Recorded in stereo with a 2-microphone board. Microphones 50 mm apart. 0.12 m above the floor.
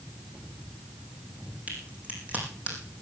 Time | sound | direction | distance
1.7 | a crack | 30° right (ahead or behind) | 4.5 m